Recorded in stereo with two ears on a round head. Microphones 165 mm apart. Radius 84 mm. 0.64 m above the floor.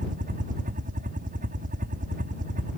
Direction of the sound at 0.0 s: 45° right (ahead or behind).